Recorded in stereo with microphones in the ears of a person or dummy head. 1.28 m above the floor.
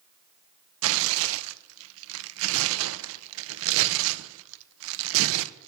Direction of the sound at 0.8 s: 75° right (ahead or behind).